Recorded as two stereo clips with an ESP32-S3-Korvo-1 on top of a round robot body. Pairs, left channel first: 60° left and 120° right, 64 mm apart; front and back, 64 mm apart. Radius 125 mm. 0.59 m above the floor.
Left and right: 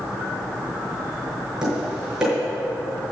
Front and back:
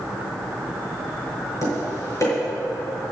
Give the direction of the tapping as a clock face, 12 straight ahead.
1 o'clock.